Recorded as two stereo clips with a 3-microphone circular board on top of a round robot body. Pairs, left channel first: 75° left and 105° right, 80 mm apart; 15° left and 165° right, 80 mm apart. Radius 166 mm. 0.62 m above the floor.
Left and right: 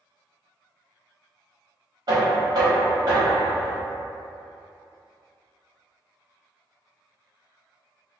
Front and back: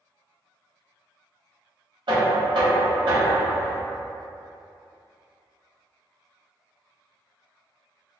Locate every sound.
2.1 s knocking: 140° right, 1.1 m